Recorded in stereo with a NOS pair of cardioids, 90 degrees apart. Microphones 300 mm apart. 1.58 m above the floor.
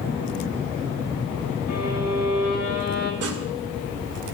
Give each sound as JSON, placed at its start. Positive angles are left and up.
{"t": 1.7, "sound": "a violin", "azimuth_deg": 60, "distance_m": 2.5}
{"t": 3.2, "sound": "sawing", "azimuth_deg": -50, "distance_m": 2.5}